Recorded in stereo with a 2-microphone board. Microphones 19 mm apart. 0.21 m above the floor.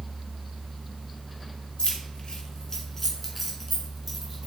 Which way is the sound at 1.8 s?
50° left (ahead or behind).